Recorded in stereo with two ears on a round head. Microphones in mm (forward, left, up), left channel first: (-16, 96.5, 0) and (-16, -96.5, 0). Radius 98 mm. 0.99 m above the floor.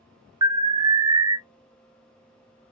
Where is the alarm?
20° right (ahead or behind), 0.5 m.